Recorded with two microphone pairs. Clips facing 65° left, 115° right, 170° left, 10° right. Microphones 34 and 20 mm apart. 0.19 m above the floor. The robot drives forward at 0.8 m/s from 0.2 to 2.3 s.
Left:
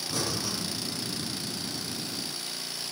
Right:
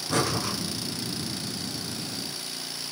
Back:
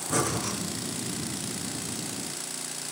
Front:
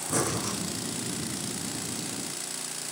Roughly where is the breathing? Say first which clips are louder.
Right 6 dB, back 1 dB; behind right.